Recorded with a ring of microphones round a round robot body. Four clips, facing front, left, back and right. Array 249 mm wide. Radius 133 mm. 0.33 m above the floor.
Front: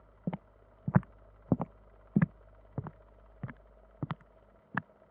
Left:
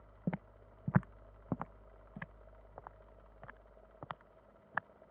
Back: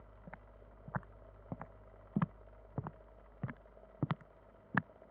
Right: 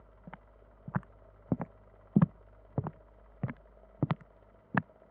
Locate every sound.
0.3 s footsteps: 35° left; by 4.9 s 95° right